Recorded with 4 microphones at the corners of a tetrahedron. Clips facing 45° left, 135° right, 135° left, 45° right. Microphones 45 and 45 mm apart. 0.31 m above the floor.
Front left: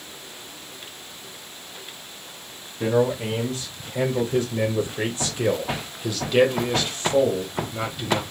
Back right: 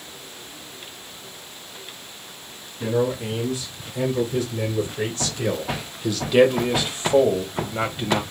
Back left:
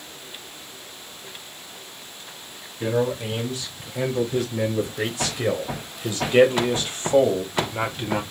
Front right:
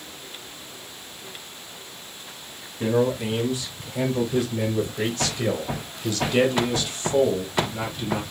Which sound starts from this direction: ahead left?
A man speaking, at 2.8 s.